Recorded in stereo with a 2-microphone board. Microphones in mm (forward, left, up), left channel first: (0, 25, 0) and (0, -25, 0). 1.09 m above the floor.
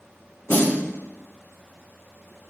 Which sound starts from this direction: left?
A snare drum, at 0.5 s.